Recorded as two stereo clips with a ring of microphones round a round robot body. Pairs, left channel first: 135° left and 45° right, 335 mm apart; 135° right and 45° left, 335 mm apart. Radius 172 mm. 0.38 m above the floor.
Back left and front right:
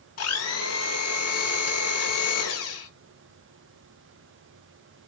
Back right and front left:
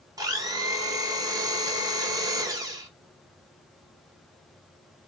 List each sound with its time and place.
0.2 s a blender: 120° left, 1.1 m